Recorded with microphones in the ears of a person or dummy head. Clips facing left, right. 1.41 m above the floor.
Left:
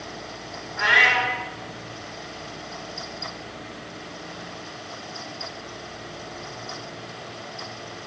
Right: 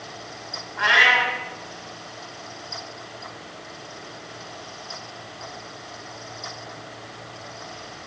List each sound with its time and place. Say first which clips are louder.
0.8 s a cat meowing: right 1 dB; 35° left (ahead or behind), 2.5 m